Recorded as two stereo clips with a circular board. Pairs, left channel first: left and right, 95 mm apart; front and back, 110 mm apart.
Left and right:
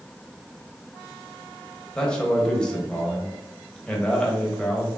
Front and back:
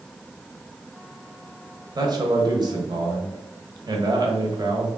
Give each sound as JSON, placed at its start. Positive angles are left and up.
{"t": 1.9, "sound": "a man speaking", "azimuth_deg": 165, "distance_m": 1.0}